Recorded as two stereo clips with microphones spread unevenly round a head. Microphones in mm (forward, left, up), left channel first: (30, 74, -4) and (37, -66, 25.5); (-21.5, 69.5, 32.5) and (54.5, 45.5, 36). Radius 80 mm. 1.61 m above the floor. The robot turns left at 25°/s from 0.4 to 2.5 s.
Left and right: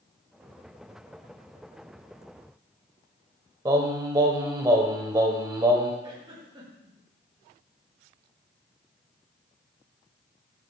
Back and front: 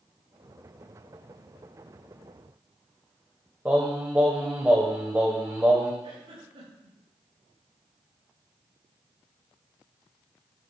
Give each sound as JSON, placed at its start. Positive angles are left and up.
{"t": 3.6, "sound": "singing", "azimuth_deg": -80, "distance_m": 1.6}
{"t": 6.0, "sound": "a giggle", "azimuth_deg": -30, "distance_m": 7.0}